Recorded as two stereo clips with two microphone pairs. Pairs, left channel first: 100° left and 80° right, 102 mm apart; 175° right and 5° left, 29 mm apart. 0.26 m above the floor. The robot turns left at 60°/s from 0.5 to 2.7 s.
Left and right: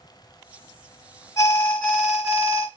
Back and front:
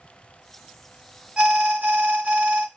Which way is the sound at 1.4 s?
55° left.